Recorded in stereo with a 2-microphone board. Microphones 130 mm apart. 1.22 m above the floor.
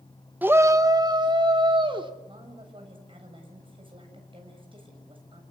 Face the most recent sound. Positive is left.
turn(degrees=-45)  # may be behind; listen again after turning